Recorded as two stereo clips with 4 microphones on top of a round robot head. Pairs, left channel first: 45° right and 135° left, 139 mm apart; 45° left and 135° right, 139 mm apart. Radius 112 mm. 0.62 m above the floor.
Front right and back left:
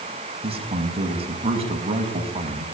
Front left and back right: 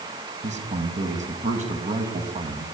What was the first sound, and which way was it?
A man speaking, 175° right.